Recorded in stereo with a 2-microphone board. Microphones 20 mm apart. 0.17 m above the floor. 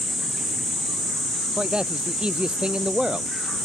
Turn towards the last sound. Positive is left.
turn(degrees=-40)  # may be behind; listen again after turning